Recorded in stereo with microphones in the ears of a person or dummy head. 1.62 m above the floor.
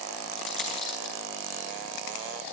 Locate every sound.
0.4 s a dropped coin: 70° left (ahead or behind), 8 m